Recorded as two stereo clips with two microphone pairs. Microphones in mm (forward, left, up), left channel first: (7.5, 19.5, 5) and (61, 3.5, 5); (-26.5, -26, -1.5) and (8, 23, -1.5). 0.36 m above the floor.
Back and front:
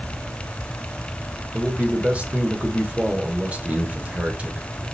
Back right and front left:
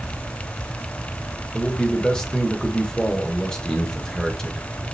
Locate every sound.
1.5 s a man speaking: 60° right, 1.4 m